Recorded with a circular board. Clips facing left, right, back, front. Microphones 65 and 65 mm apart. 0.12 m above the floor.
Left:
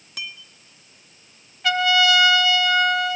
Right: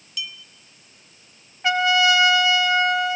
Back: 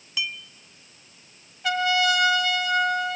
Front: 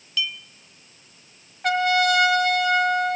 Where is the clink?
115° left, 1.1 m.